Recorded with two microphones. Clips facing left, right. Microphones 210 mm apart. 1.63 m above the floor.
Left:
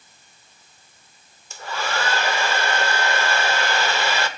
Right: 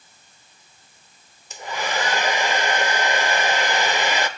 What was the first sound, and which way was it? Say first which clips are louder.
A hair dryer: right 1 dB; 15° right (ahead or behind).